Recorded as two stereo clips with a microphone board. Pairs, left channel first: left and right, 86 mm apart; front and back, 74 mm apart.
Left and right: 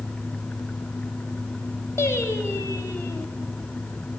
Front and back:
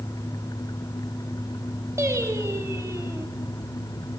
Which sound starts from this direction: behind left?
Singing, at 2.0 s.